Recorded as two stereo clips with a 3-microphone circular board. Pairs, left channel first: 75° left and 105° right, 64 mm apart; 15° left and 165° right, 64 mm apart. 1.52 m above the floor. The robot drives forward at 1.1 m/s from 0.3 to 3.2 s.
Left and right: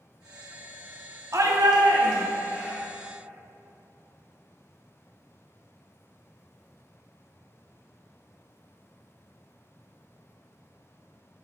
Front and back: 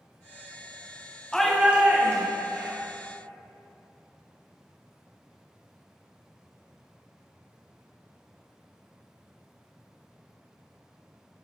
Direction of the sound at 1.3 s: 65° right.